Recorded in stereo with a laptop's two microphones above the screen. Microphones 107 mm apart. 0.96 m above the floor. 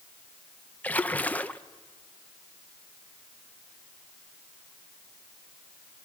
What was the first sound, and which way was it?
A splash, 15° left (ahead or behind).